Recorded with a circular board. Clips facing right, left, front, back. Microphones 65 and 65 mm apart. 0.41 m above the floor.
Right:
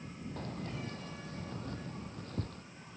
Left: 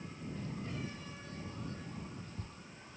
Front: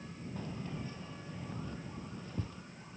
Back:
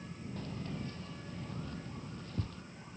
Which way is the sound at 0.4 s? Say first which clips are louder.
Right 1 dB, even; 75° right.